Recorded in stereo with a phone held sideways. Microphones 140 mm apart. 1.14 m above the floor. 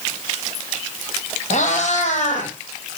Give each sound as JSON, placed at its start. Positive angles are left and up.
{"t": 1.5, "sound": "a cat meowing", "side_deg": 60, "distance_m": 2.5}